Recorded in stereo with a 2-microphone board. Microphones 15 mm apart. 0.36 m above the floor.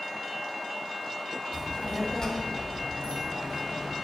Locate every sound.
1.5 s a child speaking: 15° left (ahead or behind), 1.2 m; by 4.0 s 50° left (ahead or behind), 1.8 m